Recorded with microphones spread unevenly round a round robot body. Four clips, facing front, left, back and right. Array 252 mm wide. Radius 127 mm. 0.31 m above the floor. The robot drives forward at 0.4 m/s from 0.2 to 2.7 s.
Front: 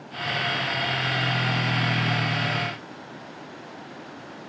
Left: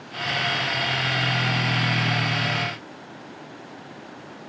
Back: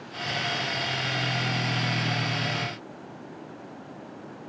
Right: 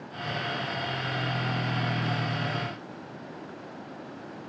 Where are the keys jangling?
No keys jangling in this recording.